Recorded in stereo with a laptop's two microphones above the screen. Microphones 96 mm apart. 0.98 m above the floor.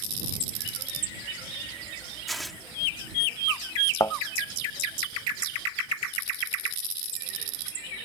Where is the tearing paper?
Centre (ahead or behind).